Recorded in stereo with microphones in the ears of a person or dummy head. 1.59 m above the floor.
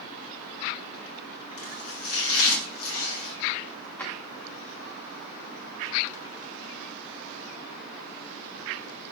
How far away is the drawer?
About 1.7 m.